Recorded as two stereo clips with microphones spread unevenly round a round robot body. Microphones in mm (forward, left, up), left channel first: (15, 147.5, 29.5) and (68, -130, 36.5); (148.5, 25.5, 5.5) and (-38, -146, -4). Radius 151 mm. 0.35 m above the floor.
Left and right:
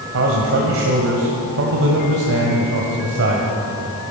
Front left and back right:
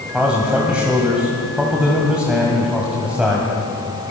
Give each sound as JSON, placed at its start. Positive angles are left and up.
{"t": 0.1, "sound": "a man speaking", "azimuth_deg": -55, "distance_m": 2.0}